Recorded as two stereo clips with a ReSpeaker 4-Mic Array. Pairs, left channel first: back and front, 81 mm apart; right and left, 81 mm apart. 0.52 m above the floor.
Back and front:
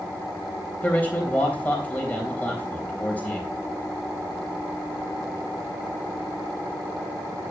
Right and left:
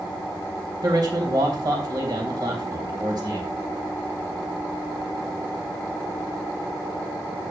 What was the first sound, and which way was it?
A man speaking, 110° left.